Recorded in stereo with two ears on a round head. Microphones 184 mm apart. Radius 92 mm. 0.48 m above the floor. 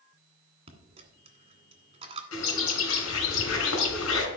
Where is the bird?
75° left (ahead or behind), 3.5 m.